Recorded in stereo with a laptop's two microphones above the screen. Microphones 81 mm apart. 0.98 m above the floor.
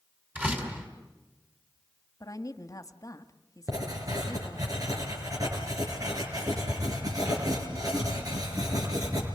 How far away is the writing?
About 5 m.